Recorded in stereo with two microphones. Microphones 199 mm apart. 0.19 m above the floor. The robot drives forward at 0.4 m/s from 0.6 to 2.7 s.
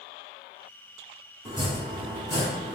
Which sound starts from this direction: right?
Chopping, at 1.4 s.